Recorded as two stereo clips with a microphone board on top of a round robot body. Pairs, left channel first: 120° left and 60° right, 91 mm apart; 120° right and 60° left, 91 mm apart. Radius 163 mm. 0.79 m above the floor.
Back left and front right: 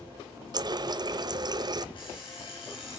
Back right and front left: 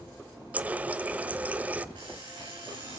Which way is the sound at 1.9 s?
90° left.